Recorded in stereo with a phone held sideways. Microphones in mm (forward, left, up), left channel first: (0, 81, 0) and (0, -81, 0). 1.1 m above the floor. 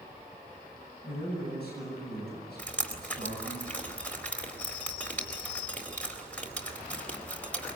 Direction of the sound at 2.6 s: 10° left (ahead or behind).